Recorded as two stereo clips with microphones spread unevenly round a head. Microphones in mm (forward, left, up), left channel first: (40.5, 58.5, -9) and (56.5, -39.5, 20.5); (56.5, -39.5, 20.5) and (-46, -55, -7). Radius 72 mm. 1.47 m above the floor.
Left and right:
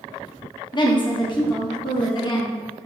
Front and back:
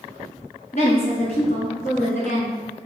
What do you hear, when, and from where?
0.7 s a woman speaking: 60° left, 0.9 m